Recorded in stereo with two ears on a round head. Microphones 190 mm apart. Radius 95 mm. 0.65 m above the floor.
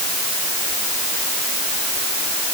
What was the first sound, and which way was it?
Only background noise.